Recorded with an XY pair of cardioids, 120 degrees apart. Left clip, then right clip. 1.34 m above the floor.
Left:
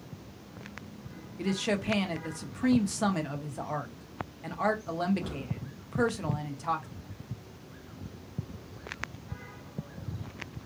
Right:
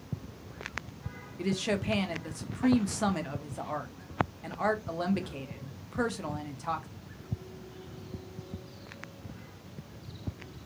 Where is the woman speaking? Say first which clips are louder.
Left 1 dB; 5° left, 0.7 m.